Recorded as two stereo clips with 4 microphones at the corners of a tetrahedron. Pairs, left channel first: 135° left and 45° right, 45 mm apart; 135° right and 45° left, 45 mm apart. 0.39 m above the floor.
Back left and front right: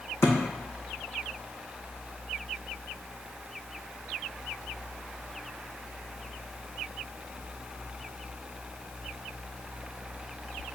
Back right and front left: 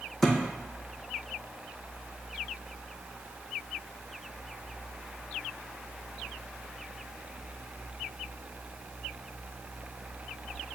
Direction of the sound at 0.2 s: 140° left.